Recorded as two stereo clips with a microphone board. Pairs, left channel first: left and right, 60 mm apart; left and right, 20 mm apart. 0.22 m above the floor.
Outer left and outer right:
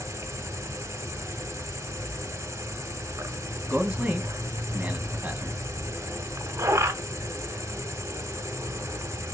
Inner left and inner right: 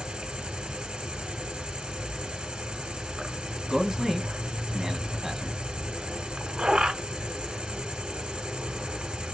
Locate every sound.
0.0 s an insect: 60° right (ahead or behind), 0.9 m
3.7 s a man speaking: 20° right (ahead or behind), 1.5 m